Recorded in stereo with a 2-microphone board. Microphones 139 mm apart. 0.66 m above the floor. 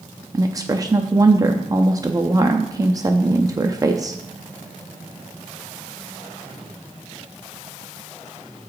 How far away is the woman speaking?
About 0.6 m.